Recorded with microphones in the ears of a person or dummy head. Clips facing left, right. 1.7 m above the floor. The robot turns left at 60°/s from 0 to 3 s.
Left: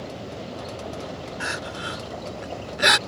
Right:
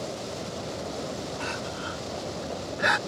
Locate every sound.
1.4 s crying: 10° left (ahead or behind); by 3.0 s 50° left (ahead or behind)